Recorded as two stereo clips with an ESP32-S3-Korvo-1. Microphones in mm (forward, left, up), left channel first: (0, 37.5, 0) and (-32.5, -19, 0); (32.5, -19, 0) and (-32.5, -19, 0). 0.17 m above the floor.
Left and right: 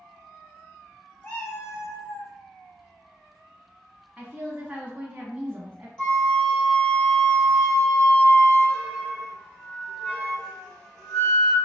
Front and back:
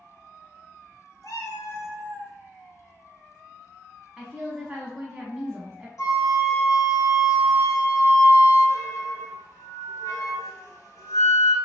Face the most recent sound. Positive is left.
turn(degrees=-15)